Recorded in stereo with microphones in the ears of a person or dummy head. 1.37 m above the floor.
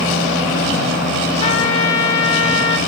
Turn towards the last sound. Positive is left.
turn(degrees=35)  # may be behind; listen again after turning